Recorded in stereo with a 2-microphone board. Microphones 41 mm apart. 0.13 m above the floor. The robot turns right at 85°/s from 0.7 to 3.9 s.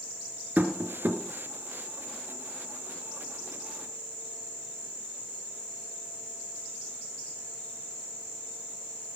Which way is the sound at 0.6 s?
45° right (ahead or behind).